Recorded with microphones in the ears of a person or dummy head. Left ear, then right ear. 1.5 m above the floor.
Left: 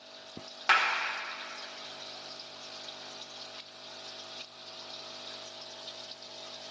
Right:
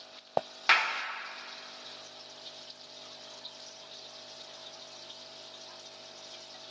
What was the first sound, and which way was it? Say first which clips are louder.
A clap: even; 20° right (ahead or behind).